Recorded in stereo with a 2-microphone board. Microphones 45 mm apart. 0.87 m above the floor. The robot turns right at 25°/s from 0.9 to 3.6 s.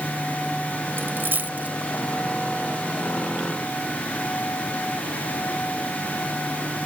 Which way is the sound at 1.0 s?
60° right (ahead or behind).